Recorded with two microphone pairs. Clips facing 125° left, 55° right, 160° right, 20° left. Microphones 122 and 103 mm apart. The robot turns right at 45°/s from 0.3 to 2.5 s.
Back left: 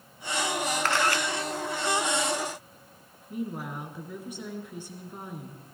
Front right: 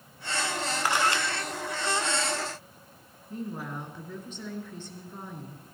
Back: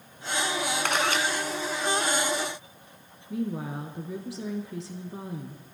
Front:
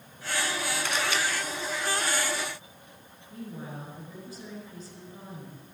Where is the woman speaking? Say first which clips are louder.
Back left 2 dB, back 9 dB; 160° right, 3 m.